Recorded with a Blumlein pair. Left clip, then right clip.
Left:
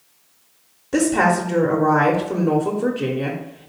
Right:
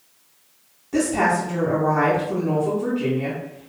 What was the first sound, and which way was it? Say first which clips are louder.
A woman speaking: left 3 dB; 70° left.